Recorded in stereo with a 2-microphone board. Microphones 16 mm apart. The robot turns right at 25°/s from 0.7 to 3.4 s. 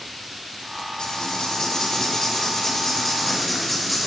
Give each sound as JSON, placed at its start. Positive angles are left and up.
{"t": 1.0, "sound": "writing", "azimuth_deg": 110, "distance_m": 3.5}